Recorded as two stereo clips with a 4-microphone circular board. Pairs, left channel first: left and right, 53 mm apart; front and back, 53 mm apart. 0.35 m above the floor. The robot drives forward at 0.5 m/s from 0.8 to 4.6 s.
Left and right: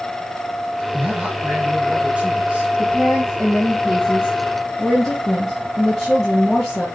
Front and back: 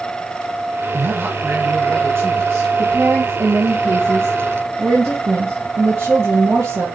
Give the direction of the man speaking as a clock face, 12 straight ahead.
5 o'clock.